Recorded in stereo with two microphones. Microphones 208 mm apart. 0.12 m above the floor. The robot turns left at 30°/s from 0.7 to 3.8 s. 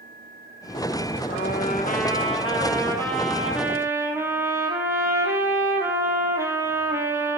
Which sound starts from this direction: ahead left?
A trumpet, at 1.3 s.